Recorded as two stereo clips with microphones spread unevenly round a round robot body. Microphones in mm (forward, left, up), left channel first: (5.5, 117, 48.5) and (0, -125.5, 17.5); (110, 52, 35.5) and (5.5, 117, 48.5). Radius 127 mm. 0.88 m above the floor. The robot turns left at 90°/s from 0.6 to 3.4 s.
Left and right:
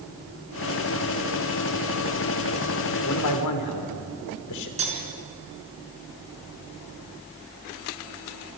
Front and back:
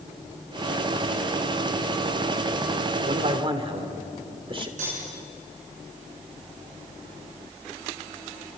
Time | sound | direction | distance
3.0 | a man speaking | 135° left | 3.5 m
4.8 | cutlery clinking | 155° right | 6 m